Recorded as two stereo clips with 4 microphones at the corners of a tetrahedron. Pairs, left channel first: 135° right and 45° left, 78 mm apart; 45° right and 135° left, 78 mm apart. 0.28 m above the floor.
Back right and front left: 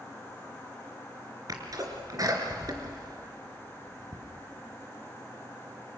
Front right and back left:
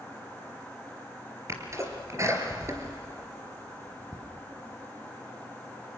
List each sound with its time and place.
1.5 s a sneeze: 85° left, 3.5 m